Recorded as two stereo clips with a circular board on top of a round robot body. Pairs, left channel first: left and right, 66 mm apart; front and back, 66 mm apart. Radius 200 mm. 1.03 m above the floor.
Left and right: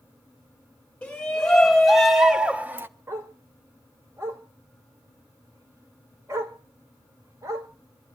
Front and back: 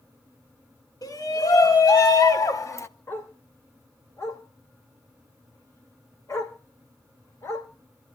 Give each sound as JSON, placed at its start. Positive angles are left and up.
{"t": 1.0, "sound": "a shout", "azimuth_deg": 15, "distance_m": 3.0}
{"t": 3.1, "sound": "a dog barking", "azimuth_deg": -45, "distance_m": 2.0}